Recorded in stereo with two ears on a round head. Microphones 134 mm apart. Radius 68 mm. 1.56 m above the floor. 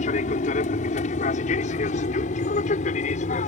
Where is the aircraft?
50° left (ahead or behind).